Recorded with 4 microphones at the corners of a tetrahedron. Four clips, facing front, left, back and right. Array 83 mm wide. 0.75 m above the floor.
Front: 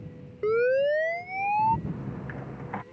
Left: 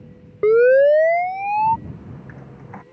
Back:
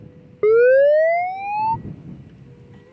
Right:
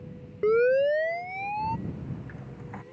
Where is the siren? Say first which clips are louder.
Left 9 dB, back 11 dB; 140° left; by 1.8 s 115° left.